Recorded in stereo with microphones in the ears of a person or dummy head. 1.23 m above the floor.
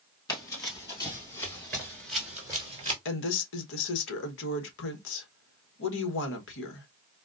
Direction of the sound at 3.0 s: 70° left (ahead or behind).